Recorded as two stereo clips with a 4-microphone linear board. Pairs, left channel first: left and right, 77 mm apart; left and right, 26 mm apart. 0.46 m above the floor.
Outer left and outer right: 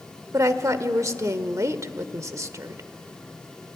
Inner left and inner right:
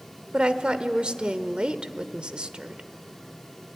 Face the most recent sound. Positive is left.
turn(degrees=-40)  # may be behind; listen again after turning